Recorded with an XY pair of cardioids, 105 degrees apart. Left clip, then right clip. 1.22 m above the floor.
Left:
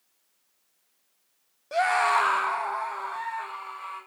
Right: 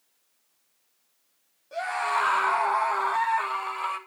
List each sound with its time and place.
1.7 s a scream: 65° left, 0.9 m; by 4.0 s 65° right, 2 m